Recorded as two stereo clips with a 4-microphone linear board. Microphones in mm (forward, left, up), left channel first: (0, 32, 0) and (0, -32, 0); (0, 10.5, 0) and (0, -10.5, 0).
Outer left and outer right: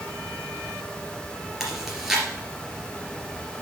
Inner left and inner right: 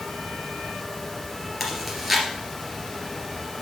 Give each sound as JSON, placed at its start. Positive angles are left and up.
{"t": 1.6, "sound": "chewing", "side_deg": -5, "distance_m": 2.5}